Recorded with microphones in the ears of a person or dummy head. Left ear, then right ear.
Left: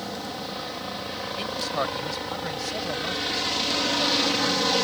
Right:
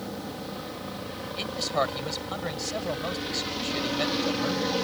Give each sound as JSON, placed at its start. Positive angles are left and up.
{"t": 0.0, "sound": "a helicopter", "side_deg": 30}
{"t": 1.4, "sound": "a man speaking", "side_deg": -5}